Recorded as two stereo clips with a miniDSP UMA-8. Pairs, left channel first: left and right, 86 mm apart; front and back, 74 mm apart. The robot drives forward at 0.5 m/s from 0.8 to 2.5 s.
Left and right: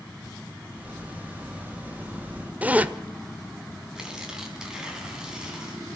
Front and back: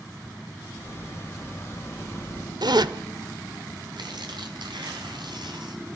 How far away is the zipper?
About 1.0 m.